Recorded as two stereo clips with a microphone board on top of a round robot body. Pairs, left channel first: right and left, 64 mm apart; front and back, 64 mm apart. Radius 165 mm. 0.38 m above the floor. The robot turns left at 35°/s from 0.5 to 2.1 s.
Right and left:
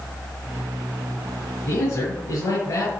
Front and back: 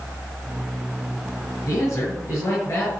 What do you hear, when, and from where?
1.7 s a man speaking: 30° right, 9 m; by 2.9 s 45° right, 9 m